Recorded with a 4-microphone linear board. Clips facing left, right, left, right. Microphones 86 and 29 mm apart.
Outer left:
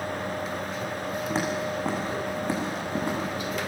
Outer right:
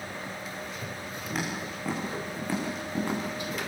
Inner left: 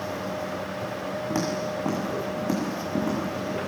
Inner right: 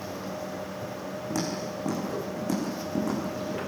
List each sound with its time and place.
1.3 s footsteps: 30° left (ahead or behind), 8 m; by 3.6 s 15° left (ahead or behind), 10 m